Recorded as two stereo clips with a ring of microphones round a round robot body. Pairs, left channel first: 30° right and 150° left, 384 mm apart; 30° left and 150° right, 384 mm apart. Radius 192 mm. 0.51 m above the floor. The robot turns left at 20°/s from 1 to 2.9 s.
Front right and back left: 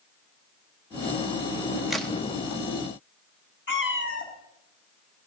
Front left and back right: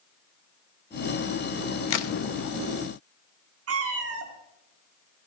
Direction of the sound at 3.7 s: 95° right.